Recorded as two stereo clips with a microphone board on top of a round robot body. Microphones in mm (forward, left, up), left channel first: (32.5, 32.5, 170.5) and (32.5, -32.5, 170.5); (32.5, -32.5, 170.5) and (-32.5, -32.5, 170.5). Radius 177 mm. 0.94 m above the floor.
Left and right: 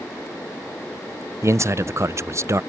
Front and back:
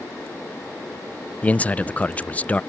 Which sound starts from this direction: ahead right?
A man speaking, at 1.4 s.